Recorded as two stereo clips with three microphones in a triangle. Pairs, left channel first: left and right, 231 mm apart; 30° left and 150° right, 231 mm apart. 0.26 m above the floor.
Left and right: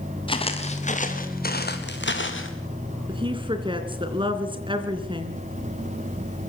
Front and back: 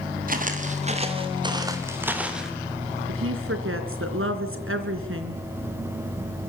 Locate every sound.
0.3 s footsteps: 160° left, 4.5 m; by 2.5 s 120° left, 4 m
3.1 s a woman speaking: 155° right, 3 m